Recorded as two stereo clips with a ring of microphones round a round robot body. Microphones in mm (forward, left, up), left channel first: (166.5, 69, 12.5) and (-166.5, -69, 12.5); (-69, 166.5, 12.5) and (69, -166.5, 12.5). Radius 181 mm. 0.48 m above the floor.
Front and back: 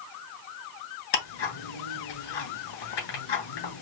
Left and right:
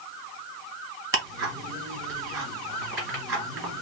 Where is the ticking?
15° left, 3 m.